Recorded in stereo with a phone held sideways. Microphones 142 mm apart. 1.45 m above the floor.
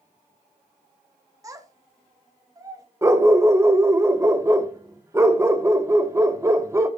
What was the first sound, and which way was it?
A child speaking, 25° right (ahead or behind).